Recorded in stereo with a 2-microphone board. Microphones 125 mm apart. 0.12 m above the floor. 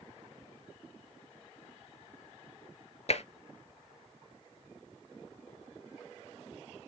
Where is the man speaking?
No man speaking in this recording.